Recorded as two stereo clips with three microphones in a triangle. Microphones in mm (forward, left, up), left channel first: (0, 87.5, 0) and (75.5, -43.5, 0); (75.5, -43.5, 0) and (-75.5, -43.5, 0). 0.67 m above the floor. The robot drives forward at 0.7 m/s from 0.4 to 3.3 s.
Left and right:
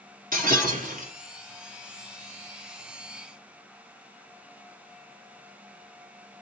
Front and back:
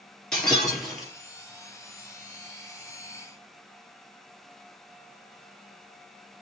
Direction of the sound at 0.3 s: 85° right.